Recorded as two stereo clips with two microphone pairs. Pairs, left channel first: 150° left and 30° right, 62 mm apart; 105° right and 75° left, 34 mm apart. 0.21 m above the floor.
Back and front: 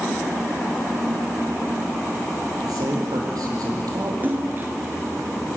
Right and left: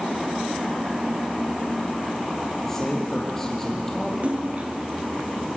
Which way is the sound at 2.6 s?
30° right.